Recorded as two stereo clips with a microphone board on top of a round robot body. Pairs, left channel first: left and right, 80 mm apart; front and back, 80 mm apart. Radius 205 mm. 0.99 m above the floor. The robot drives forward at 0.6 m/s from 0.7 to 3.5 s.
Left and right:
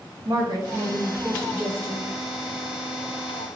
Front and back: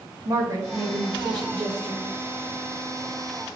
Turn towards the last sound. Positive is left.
turn(degrees=-160)